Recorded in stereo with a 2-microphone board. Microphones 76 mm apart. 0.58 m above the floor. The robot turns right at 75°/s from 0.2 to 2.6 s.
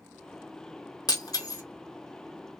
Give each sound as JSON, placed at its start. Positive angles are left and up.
{"t": 1.1, "sound": "breaking glass", "side_deg": 60, "distance_m": 1.0}